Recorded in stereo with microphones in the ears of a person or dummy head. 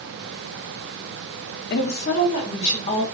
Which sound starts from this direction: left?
A woman speaking, at 1.7 s.